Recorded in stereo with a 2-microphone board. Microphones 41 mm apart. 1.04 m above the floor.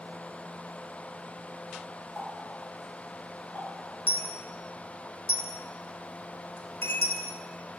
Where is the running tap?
30° left (ahead or behind), 2.5 m.